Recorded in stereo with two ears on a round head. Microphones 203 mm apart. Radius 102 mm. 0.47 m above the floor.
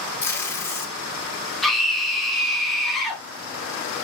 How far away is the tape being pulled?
About 0.7 m.